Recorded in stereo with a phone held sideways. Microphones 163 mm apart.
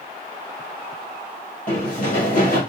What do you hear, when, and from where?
1.7 s running footsteps: 55° left (ahead or behind), 1.7 m